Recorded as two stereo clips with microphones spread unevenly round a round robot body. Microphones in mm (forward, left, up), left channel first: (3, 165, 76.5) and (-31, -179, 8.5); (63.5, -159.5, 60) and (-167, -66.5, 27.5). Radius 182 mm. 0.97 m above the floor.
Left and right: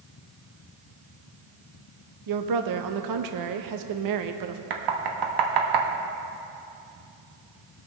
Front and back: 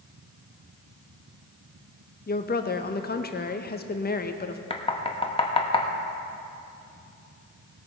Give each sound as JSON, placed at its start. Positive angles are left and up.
{"t": 2.3, "sound": "a woman speaking", "azimuth_deg": -80, "distance_m": 0.8}
{"t": 4.7, "sound": "knocking", "azimuth_deg": -95, "distance_m": 1.3}